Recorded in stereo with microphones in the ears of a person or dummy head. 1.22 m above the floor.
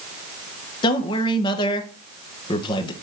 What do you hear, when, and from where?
0.8 s a man speaking: 25° left (ahead or behind), 1.1 m